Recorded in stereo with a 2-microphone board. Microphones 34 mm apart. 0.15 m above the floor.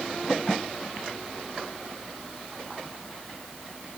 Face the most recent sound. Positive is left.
No sound to turn to.